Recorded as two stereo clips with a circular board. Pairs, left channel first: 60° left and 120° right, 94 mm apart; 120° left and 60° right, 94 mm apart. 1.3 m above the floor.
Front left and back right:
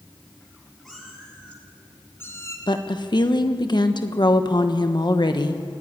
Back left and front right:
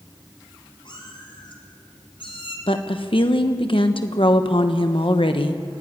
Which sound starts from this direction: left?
A woman speaking, at 2.7 s.